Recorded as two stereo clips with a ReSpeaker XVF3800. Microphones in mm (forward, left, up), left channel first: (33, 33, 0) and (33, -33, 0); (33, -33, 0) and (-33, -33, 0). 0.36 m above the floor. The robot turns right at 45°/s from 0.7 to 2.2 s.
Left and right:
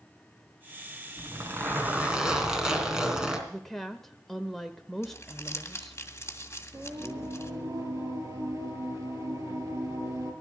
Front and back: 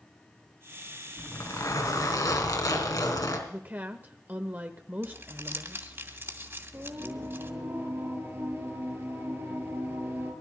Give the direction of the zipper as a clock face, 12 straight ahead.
2 o'clock.